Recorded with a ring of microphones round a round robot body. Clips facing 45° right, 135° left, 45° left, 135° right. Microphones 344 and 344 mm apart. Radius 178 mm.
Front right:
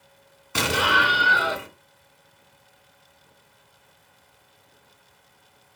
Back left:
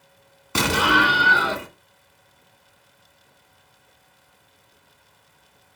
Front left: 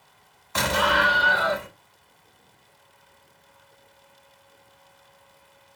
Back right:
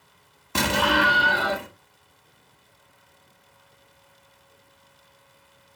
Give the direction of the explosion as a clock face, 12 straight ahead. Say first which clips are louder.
Back left 4 dB, back right 2 dB; 6 o'clock.